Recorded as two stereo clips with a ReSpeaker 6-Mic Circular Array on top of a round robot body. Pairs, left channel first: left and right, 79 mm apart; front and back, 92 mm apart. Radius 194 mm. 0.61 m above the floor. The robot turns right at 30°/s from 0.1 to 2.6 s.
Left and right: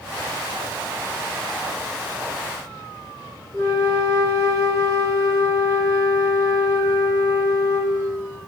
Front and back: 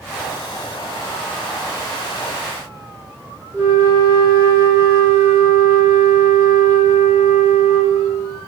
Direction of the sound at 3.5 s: 125° left.